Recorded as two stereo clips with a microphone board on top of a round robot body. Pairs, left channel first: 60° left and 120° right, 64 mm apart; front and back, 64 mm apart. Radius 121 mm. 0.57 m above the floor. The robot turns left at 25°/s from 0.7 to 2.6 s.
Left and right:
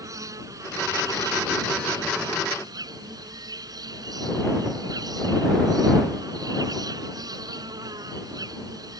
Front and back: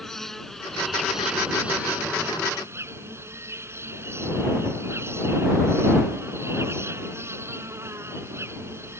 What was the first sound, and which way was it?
An insect, 85° right.